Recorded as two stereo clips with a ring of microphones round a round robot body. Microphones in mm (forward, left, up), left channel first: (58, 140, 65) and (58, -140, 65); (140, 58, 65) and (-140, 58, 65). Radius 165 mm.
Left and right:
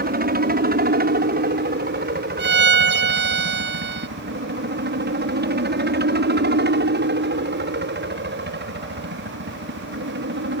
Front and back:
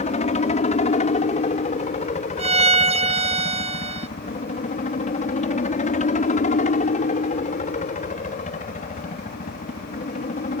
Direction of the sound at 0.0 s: 55° right.